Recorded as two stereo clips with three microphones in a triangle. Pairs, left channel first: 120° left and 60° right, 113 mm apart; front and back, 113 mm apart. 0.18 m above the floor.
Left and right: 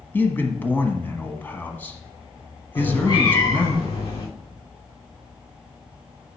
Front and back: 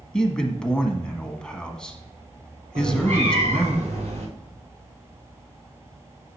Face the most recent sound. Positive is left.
turn(degrees=170)